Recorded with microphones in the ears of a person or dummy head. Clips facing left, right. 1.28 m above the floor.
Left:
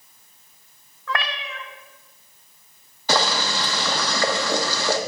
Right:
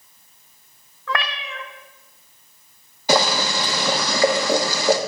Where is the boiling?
10° right (ahead or behind), 1.1 m.